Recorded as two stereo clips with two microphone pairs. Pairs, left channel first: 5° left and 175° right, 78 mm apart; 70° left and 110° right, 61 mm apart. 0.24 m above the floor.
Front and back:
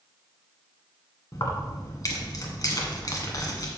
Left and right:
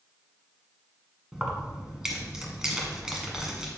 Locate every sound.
1.3 s keys jangling: 30° right, 1.4 m